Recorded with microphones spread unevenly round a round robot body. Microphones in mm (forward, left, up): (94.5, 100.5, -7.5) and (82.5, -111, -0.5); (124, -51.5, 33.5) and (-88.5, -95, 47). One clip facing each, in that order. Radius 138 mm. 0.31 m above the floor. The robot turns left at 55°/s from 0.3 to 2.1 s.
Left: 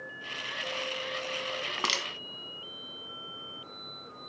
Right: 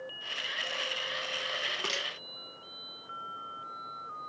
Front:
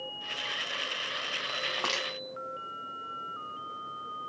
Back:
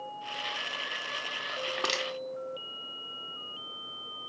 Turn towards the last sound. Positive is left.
turn(degrees=100)